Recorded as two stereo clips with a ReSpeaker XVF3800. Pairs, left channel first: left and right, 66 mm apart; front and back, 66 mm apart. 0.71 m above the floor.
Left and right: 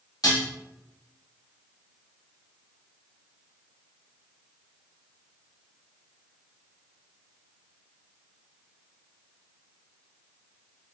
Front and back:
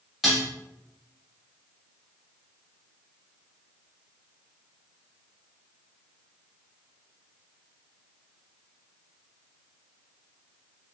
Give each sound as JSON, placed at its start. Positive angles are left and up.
{"t": 0.2, "sound": "dishes clattering", "azimuth_deg": 90, "distance_m": 1.3}